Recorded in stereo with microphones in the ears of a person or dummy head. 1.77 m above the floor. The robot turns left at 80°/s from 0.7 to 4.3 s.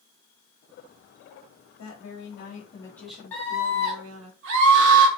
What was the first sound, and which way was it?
A woman speaking, 105° left.